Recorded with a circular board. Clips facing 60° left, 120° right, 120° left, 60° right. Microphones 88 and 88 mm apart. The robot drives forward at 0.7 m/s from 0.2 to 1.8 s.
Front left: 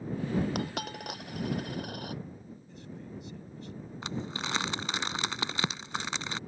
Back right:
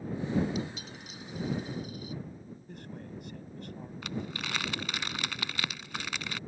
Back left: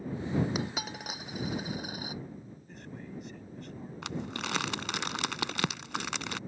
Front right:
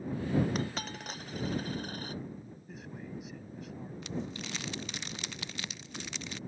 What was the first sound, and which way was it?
A dropped coin, 40° left.